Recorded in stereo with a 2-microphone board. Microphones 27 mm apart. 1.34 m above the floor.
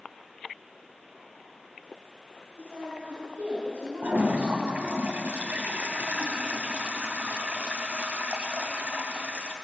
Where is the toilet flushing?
70° right (ahead or behind), 3 m.